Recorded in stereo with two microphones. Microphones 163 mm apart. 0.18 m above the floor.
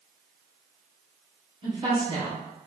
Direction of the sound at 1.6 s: 30° right (ahead or behind).